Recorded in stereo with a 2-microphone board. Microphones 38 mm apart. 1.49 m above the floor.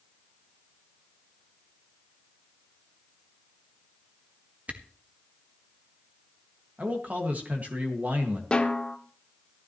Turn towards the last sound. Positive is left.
turn(degrees=25)  # may be behind; listen again after turning